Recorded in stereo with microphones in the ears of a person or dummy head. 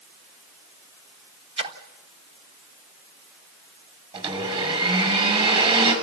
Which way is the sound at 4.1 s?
30° right (ahead or behind).